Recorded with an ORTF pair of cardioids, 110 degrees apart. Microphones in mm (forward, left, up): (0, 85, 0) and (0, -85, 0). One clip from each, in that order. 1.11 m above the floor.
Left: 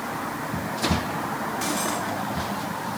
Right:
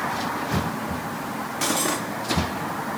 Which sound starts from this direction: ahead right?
Cutlery clinking, at 1.6 s.